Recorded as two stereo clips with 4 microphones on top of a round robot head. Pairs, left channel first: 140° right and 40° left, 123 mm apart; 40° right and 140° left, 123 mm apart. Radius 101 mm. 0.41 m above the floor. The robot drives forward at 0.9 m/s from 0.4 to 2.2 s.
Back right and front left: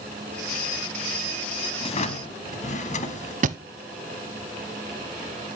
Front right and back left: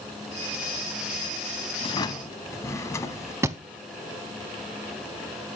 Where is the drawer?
90° right, 0.9 m; by 3.3 s 110° right, 1.0 m.